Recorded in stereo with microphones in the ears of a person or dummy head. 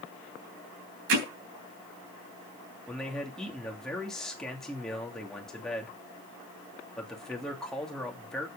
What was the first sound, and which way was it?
Hammering, 75° right (ahead or behind).